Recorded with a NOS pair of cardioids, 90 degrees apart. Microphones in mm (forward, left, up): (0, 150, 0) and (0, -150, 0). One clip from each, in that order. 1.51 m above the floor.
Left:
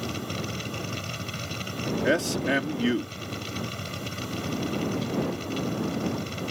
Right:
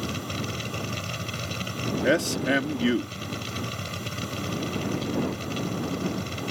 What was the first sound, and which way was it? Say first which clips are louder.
A machine running: right 1 dB; 20° right.